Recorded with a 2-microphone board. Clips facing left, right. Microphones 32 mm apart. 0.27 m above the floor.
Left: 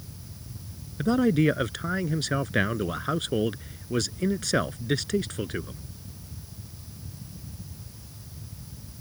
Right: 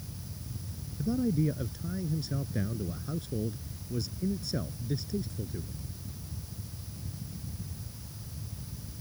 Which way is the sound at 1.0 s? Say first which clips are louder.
Left 7 dB; 70° left (ahead or behind).